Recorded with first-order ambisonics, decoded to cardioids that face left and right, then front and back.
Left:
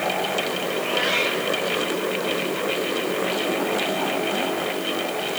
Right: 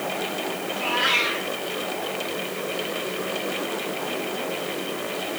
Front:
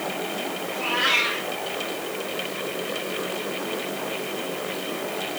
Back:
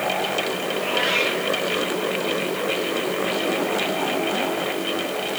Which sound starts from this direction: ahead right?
A cat meowing, at 0.7 s.